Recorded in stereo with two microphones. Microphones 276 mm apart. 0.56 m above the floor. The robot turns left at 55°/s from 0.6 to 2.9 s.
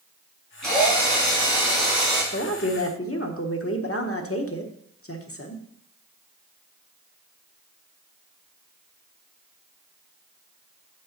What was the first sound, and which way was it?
A drill, 80° right.